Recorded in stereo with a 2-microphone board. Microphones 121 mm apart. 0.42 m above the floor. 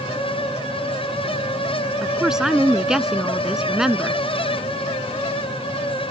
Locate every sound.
2.0 s a woman speaking: 5° right (ahead or behind)